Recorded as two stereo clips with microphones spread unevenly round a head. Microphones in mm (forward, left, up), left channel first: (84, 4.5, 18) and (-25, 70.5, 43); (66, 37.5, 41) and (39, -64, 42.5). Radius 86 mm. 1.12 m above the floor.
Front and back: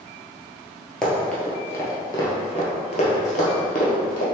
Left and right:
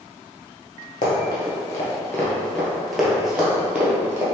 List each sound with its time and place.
1.0 s running footsteps: 65° left, 1.3 m; by 4.2 s 40° right, 1.7 m